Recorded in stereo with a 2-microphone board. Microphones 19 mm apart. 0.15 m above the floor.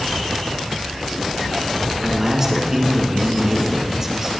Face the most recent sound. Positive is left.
turn(degrees=-25)  # may be behind; listen again after turning